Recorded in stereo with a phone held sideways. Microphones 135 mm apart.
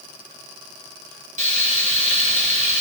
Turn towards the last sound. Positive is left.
turn(degrees=-65)  # may be behind; listen again after turning